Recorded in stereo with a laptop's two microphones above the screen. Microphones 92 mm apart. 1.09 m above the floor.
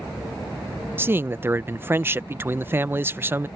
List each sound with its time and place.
1.0 s a man speaking: 25° right (ahead or behind)